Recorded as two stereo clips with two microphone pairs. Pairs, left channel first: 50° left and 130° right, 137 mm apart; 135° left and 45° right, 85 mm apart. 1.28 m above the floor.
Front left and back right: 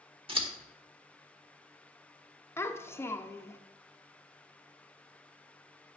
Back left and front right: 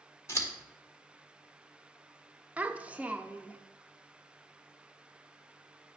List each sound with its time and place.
0.3 s scissors: 175° right, 1.4 m
2.6 s a child speaking: straight ahead, 0.5 m